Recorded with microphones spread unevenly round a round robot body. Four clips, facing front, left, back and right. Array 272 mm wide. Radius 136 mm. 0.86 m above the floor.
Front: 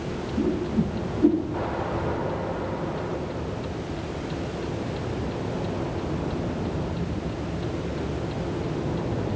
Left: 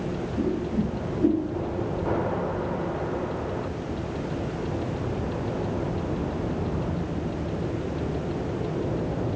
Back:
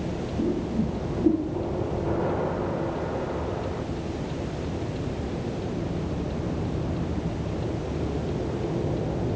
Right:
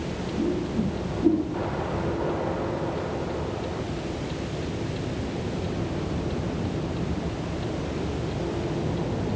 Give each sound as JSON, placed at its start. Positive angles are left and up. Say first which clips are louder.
{"t": 0.4, "sound": "a whoosh", "louder": "even, front 2 dB", "azimuth_deg": 15, "distance_m": 7.5}